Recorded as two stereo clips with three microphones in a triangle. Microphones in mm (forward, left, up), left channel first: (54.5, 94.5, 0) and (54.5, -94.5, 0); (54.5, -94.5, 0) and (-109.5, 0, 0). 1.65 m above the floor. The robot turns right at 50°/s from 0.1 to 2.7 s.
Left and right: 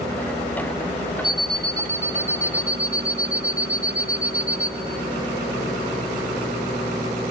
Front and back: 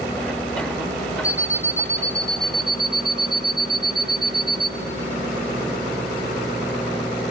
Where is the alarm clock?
5° right, 0.7 m; by 4.7 s 65° left, 0.7 m.